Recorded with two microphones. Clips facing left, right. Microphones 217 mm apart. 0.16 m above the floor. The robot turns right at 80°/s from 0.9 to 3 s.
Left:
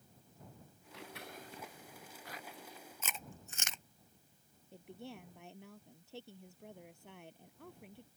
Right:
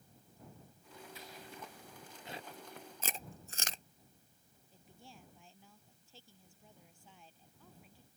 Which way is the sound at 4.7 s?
70° left (ahead or behind).